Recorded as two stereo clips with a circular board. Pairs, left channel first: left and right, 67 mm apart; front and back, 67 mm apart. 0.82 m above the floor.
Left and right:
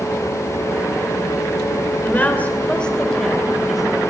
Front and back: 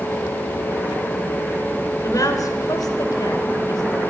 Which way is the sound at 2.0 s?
30° left.